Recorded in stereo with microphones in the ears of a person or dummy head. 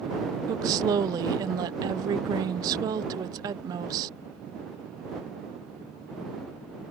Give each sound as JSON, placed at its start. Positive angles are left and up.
{"t": 0.5, "sound": "a woman speaking", "side_deg": -20}